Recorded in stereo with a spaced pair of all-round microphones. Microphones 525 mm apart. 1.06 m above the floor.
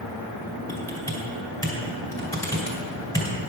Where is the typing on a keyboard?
5° left (ahead or behind), 2.5 m.